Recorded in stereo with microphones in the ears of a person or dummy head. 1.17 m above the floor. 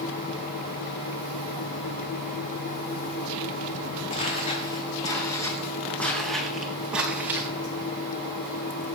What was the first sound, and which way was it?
Footsteps, 30° left (ahead or behind).